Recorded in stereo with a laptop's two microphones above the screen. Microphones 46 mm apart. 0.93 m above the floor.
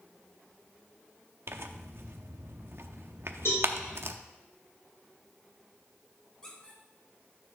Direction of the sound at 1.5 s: 60° right (ahead or behind).